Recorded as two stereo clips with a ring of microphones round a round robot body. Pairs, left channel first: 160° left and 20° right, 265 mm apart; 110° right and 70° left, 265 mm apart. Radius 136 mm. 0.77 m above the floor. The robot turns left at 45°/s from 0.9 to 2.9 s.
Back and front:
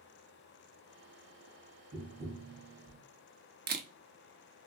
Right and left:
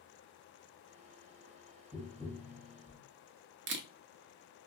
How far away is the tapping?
About 1.0 m.